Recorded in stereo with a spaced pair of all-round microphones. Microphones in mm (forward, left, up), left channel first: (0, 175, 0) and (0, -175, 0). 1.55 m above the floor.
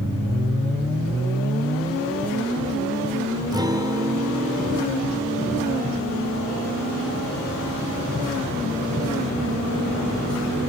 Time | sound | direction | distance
3.5 | a guitar | 10° right (ahead or behind) | ?